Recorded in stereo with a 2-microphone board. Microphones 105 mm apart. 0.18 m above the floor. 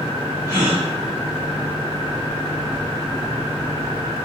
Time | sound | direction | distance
0.5 | a gasp | 30° left (ahead or behind) | 1.6 m